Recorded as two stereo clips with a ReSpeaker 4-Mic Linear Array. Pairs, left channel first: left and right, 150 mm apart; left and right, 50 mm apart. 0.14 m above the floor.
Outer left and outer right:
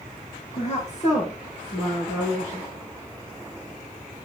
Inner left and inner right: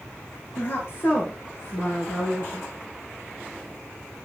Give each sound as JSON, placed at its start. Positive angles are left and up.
{"t": 0.6, "sound": "a woman speaking", "side_deg": 50, "distance_m": 2.5}